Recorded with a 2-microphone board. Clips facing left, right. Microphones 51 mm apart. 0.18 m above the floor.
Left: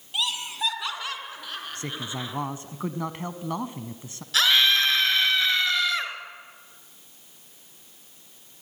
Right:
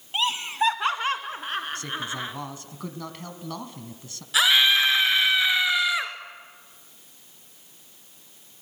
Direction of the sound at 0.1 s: 40° right (ahead or behind).